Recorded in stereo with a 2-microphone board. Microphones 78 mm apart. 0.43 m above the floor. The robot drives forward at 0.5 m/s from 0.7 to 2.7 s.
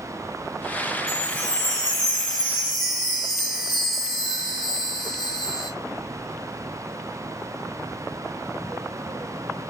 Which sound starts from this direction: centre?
A chime, at 1.1 s.